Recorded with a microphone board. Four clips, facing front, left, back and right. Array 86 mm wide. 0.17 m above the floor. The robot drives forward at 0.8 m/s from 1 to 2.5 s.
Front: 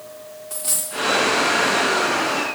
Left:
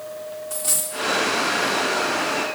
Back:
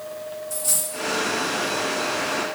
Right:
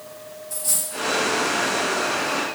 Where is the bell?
No bell in this recording.